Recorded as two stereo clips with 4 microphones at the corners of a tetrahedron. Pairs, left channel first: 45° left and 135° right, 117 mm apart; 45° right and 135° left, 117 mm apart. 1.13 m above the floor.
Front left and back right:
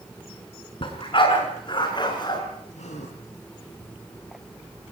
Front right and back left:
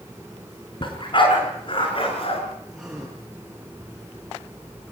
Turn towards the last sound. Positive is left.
turn(degrees=50)